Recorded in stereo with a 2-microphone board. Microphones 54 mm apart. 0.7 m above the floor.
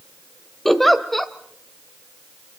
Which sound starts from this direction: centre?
A giggle, at 0.7 s.